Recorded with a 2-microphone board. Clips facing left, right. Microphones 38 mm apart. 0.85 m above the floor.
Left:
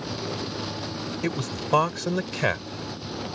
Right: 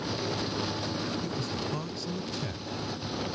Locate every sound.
1.2 s a man speaking: 70° left (ahead or behind)